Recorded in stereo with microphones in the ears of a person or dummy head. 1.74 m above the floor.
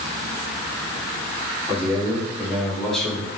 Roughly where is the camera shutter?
I don't hear a camera shutter.